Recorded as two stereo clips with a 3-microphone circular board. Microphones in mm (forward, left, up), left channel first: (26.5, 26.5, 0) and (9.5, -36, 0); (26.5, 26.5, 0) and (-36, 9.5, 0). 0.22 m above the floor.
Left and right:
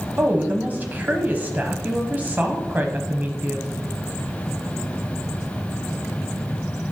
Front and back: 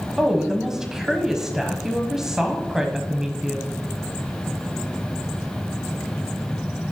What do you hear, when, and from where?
0.2 s a woman speaking: 95° right, 1.1 m